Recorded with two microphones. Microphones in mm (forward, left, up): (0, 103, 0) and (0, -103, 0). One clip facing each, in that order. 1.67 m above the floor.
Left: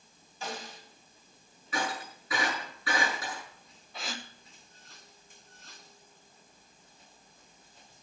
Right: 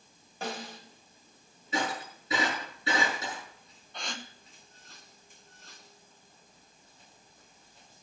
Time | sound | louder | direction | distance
0.4 | a snare drum | right 3 dB | 60° right (ahead or behind) | 3 m
1.7 | breaking glass | right 2 dB | 25° right (ahead or behind) | 8.5 m
3.9 | a gasp | even | 5° left (ahead or behind) | 1.0 m